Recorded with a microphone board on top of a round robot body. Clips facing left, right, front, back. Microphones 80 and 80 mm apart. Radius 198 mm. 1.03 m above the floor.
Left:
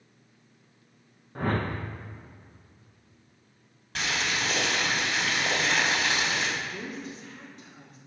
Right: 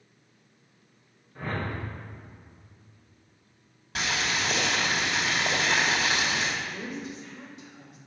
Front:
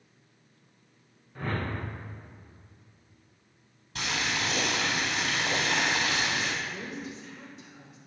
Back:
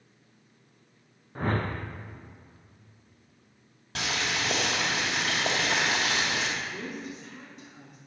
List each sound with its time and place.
1.4 s a whoosh: 130° left, 0.5 m
4.0 s boiling: 175° right, 2.5 m
6.6 s a woman speaking: 140° left, 3.5 m